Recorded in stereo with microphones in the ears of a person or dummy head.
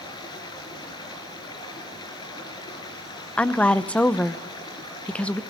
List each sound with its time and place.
0.0 s running water: 25° left (ahead or behind), 3.5 m
3.4 s a woman speaking: 5° left (ahead or behind), 0.8 m